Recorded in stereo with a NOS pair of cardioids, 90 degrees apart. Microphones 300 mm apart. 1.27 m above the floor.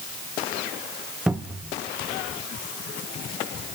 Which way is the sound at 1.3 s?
5° right.